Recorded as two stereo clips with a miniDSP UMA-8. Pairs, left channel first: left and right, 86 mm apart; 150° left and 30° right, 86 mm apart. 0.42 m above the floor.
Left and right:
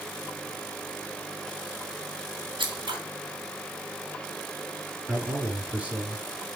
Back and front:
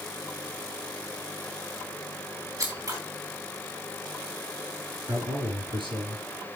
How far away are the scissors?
About 3.5 m.